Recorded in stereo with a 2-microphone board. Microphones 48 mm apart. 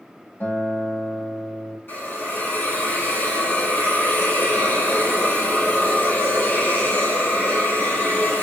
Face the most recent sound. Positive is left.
turn(degrees=40)  # may be behind; listen again after turning